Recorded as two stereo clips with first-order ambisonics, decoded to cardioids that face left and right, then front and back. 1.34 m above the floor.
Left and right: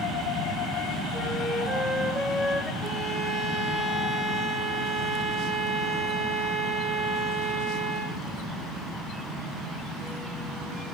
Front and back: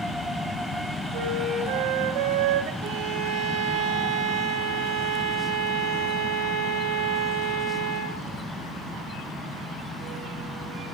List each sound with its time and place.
1.1 s a flute: straight behind, 2 m
2.8 s a violin: 145° right, 3 m